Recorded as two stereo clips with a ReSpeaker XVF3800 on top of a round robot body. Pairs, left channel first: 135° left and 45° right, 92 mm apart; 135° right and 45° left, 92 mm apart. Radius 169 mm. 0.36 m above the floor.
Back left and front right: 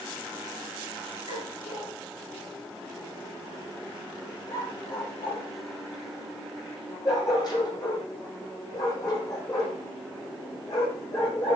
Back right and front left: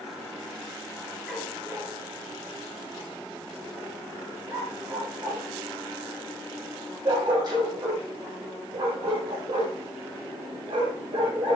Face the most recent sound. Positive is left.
turn(degrees=80)